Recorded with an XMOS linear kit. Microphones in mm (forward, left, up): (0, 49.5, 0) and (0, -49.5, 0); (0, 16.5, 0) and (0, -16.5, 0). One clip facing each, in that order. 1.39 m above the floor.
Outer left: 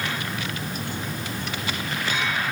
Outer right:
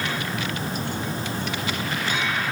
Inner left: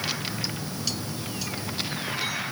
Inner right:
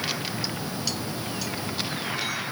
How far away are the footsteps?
No footsteps in this recording.